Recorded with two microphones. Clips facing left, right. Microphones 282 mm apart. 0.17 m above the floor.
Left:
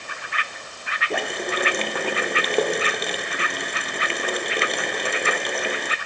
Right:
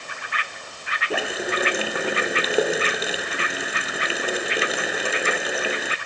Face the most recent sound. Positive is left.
turn(degrees=-5)  # may be behind; listen again after turning